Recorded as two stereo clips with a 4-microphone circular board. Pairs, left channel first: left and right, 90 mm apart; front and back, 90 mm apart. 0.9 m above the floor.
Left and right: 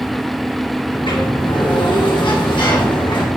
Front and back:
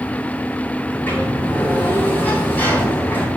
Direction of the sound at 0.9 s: 65° left.